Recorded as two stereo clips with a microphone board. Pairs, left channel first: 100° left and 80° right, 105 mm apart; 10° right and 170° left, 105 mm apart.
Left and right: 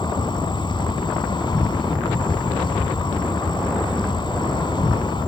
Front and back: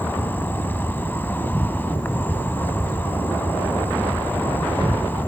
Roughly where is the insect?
Ahead left.